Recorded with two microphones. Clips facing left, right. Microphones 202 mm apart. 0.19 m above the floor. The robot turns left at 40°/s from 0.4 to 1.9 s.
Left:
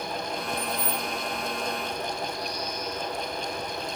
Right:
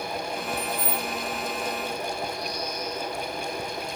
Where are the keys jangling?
10° left (ahead or behind), 0.7 m; by 1.1 s 20° left (ahead or behind), 0.7 m.